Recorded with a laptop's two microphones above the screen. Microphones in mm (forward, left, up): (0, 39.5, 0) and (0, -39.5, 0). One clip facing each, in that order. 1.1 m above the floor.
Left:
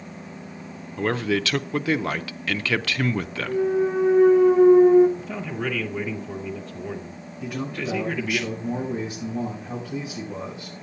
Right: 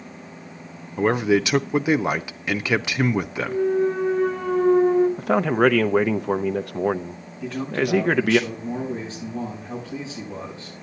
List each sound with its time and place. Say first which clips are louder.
1.0 s a man speaking: right 5 dB; 20° right (ahead or behind), 0.6 m
3.5 s a clunk: even; 10° left (ahead or behind), 0.9 m
5.2 s a man speaking: right 12 dB; 70° right (ahead or behind), 0.6 m
7.4 s a man speaking: right 5 dB; 20° left (ahead or behind), 7.5 m